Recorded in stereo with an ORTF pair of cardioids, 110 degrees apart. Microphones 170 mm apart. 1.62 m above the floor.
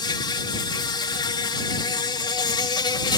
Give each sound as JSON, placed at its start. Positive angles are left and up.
{"t": 0.0, "sound": "an insect", "azimuth_deg": 25}